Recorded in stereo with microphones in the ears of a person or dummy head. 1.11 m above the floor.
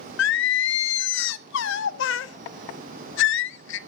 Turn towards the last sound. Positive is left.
turn(degrees=75)  # may be behind; listen again after turning